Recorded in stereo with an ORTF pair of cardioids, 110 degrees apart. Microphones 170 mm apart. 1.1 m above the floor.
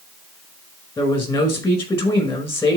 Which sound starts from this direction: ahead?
A man speaking, at 1.0 s.